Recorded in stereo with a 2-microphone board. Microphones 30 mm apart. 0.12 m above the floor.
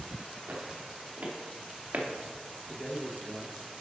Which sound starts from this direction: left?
A man speaking, at 2.7 s.